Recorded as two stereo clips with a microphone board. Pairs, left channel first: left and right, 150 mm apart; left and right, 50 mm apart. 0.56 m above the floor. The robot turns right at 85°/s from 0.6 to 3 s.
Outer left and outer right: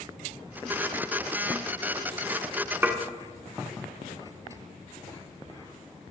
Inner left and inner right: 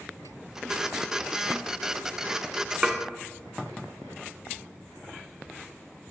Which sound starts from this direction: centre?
Dishes clattering, at 2.8 s.